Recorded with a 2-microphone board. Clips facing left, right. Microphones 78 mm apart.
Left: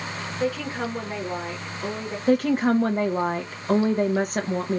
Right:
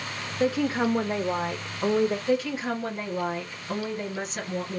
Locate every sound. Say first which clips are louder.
0.4 s a woman speaking: right 3 dB; 25° right (ahead or behind), 0.7 m
2.3 s a woman speaking: left 6 dB; 50° left (ahead or behind), 0.8 m